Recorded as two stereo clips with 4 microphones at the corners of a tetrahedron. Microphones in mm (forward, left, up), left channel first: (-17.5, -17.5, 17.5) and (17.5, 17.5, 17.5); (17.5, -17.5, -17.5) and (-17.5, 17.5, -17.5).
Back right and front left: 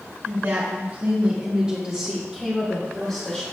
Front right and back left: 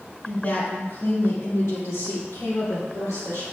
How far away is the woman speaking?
About 2.5 m.